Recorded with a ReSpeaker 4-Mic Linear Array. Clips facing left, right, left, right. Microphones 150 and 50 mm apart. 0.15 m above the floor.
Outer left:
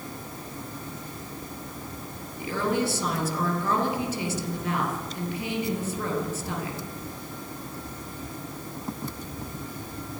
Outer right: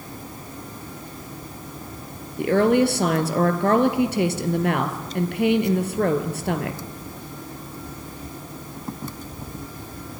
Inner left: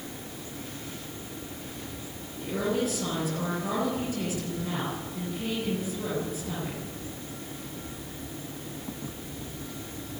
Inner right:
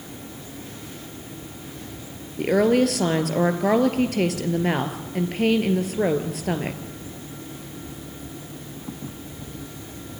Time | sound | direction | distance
2.4 | a woman speaking | 65° right (ahead or behind) | 2.5 m